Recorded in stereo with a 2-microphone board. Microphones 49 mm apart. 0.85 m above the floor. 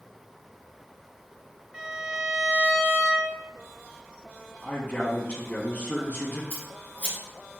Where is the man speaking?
30° left (ahead or behind), 1.1 m.